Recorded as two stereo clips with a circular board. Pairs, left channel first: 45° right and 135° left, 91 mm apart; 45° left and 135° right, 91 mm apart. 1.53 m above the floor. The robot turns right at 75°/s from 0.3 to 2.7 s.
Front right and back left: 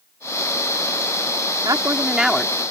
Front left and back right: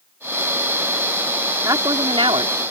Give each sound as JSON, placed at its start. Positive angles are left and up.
{"t": 1.6, "sound": "a woman speaking", "azimuth_deg": 175}